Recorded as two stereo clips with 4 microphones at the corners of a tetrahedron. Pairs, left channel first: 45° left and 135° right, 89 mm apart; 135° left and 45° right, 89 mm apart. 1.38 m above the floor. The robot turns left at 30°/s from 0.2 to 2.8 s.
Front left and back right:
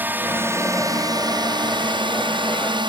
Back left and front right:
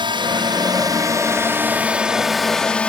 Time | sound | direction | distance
0.0 | a drone | 65° right | ?